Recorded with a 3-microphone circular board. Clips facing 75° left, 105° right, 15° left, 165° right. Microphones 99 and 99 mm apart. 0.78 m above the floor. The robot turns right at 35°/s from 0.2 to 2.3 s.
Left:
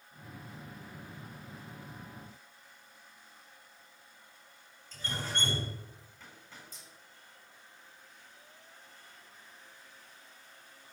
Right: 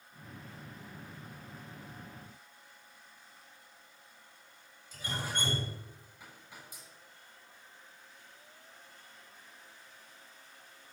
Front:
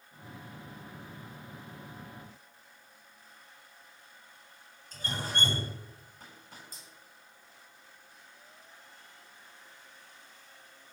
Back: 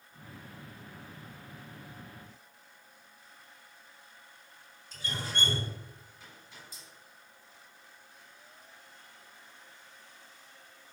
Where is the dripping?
30° right, 7 m.